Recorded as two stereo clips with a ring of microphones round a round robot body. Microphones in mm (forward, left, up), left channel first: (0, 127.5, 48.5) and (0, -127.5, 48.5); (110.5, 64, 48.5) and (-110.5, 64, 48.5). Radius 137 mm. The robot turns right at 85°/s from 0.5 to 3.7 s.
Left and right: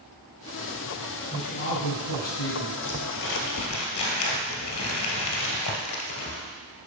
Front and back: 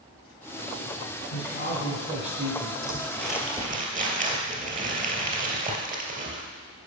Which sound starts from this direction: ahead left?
Crumpling, at 2.8 s.